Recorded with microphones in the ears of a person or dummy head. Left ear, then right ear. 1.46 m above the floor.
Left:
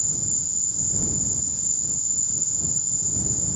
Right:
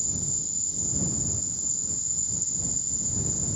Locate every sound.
0.0 s an insect: centre (ahead or behind)